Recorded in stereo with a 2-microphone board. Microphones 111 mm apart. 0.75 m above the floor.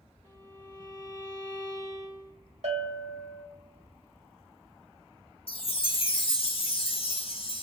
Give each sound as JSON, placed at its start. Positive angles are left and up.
{"t": 0.2, "sound": "a violin", "side_deg": -40, "distance_m": 3.0}
{"t": 2.6, "sound": "a bell", "side_deg": -70, "distance_m": 1.3}
{"t": 5.5, "sound": "a chime", "side_deg": 55, "distance_m": 1.0}